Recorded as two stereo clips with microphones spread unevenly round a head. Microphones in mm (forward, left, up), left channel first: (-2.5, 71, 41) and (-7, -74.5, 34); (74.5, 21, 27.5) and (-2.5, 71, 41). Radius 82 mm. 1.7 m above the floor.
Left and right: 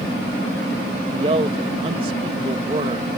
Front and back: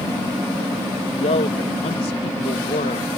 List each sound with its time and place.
1.1 s a man speaking: 35° right